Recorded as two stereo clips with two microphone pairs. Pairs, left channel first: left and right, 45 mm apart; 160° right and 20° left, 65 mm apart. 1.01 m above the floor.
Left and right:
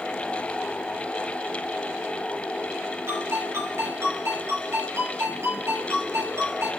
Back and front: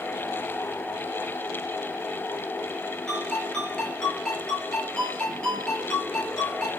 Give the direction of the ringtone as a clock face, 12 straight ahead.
3 o'clock.